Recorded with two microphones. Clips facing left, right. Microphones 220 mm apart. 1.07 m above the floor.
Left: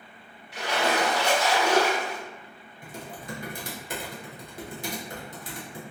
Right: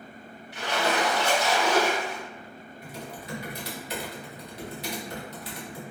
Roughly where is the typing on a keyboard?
Left.